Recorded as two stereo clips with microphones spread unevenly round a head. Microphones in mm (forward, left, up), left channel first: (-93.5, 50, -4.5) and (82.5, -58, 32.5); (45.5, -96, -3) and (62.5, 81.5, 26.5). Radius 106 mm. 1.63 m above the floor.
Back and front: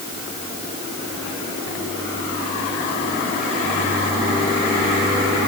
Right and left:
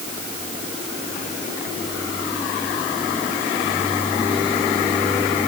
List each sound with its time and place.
Only background noise.